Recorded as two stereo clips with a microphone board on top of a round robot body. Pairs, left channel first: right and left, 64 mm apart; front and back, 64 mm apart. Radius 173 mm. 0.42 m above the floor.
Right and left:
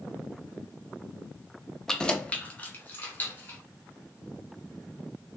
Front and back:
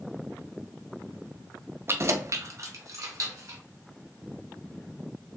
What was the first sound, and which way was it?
Keys jangling, 170° right.